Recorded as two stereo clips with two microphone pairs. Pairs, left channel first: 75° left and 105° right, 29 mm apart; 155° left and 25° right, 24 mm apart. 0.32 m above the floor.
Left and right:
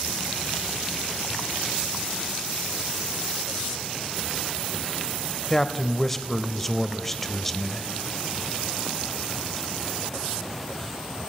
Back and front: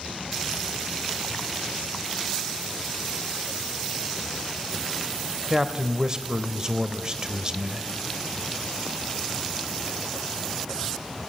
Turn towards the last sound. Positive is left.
turn(degrees=0)